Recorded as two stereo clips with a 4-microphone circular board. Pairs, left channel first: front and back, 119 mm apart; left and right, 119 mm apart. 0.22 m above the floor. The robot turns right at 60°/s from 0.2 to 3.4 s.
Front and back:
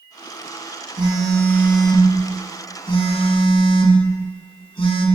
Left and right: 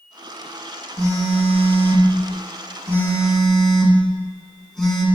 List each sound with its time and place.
1.0 s a phone buzzing: 140° right, 1.4 m; by 5.0 s 5° left, 1.4 m